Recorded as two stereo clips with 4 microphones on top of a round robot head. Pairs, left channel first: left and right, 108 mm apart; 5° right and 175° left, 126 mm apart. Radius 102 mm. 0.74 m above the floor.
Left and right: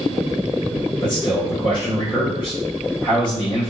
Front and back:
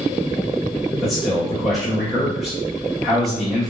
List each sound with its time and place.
1.0 s a man speaking: 85° left, 1.4 m